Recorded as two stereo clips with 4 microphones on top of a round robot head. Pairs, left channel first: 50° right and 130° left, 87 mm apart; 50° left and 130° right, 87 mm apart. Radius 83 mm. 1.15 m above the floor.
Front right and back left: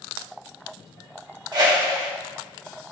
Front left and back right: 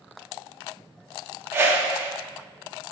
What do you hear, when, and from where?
1.5 s a whoosh: 170° left, 1.5 m